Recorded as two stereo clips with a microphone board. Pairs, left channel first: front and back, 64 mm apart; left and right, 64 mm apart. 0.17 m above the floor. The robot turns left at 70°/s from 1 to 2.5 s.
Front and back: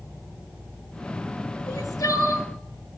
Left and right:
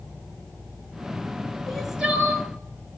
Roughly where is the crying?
Ahead.